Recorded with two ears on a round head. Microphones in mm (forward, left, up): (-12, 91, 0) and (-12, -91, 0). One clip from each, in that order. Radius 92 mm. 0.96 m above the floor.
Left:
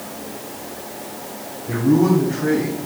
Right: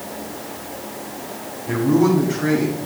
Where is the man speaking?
70° right (ahead or behind), 3.5 m; by 2.8 s 75° right (ahead or behind), 5 m.